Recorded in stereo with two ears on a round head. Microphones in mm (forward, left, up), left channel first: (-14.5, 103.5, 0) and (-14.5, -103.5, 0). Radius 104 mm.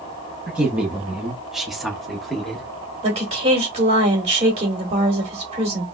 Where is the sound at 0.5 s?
5° right (ahead or behind), 0.9 m; by 2.7 s centre (ahead or behind), 1.6 m.